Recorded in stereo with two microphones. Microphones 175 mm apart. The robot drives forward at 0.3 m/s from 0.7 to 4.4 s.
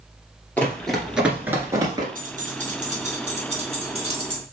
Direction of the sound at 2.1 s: 50° right (ahead or behind).